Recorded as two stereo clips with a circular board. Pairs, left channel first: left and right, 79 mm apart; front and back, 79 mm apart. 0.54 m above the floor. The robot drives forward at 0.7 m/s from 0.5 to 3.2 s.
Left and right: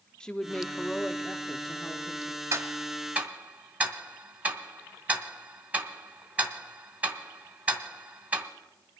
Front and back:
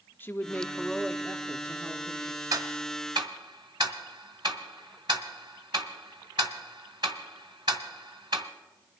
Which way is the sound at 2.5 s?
140° right.